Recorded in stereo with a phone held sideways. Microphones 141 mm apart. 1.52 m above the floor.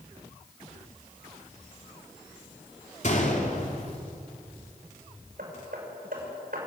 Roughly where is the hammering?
Right.